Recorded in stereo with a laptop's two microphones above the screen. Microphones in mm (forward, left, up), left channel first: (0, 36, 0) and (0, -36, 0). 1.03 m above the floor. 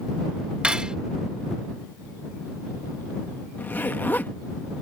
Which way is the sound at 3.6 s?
30° left (ahead or behind).